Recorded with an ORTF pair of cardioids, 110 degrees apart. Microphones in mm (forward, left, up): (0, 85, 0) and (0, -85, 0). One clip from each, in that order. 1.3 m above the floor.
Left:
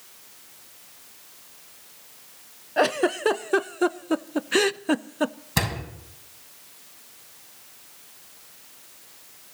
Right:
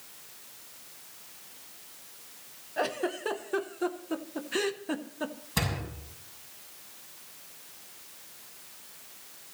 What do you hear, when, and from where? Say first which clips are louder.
2.8 s a giggle: left 9 dB; 40° left, 0.6 m
5.6 s a door slam: left 5 dB; 40° left, 6.5 m